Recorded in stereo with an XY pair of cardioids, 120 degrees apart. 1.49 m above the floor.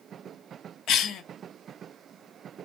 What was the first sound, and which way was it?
A cough, 65° left.